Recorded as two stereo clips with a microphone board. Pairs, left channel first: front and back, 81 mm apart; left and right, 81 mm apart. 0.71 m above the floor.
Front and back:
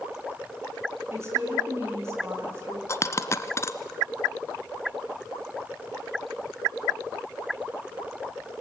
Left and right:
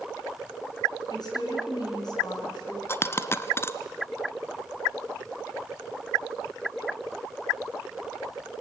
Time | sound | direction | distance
1.1 | a woman speaking | 125° left | 7 m
2.9 | a dropped coin | 40° left | 0.9 m